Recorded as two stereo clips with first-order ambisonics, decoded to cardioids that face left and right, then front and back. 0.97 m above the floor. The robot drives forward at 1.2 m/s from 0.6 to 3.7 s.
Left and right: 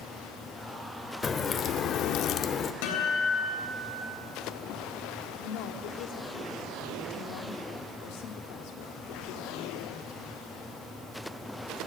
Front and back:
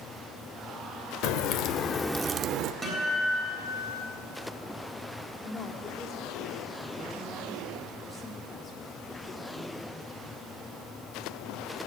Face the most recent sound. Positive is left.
turn(degrees=70)